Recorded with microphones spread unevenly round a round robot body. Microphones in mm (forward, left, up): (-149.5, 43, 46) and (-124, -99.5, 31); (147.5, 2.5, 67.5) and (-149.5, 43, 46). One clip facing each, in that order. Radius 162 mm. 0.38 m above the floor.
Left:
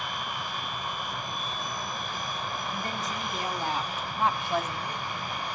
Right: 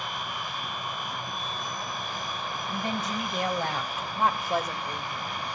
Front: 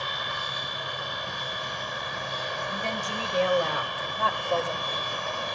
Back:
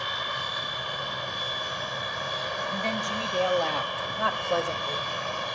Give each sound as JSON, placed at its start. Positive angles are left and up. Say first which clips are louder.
{"t": 2.7, "sound": "a woman speaking", "louder": "right 3 dB, back 3 dB", "azimuth_deg": -60, "distance_m": 3.0}